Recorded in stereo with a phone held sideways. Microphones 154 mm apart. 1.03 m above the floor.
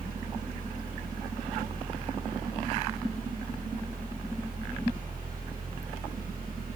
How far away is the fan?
About 2.5 m.